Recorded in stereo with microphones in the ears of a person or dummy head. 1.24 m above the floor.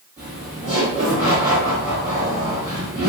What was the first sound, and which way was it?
Laughter, 10° right (ahead or behind).